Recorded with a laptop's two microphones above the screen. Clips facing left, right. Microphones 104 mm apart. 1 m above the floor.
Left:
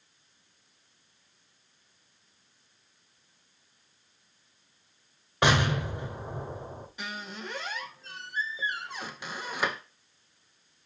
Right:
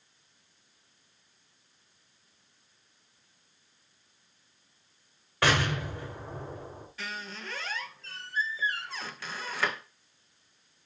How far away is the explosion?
About 1.0 m.